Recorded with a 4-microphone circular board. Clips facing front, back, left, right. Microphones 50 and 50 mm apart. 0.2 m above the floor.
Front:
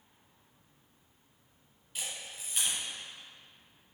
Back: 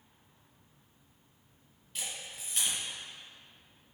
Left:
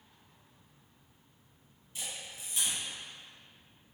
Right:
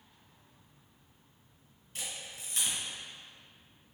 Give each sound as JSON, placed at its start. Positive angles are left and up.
{"t": 1.9, "sound": "a camera shutter", "azimuth_deg": -80, "distance_m": 1.7}